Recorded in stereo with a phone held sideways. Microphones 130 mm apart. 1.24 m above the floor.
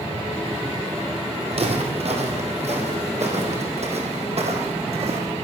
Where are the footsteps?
55° right (ahead or behind), 2.5 m.